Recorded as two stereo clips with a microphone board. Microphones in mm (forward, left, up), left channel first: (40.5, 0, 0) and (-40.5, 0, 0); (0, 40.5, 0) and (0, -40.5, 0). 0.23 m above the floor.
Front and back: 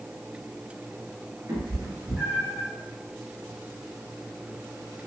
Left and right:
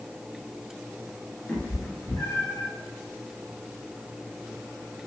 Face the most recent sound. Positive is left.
turn(degrees=100)